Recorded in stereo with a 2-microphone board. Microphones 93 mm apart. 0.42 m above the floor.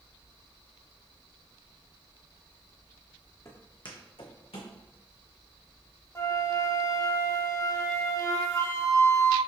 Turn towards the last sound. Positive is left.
turn(degrees=30)  # may be behind; listen again after turning